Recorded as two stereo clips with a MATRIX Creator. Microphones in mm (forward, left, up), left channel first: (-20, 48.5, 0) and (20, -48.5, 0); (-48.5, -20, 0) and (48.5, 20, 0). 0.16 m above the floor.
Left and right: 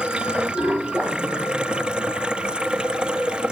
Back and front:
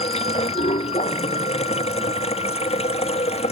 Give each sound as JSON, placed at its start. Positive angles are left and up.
{"t": 0.0, "sound": "running water", "azimuth_deg": -150}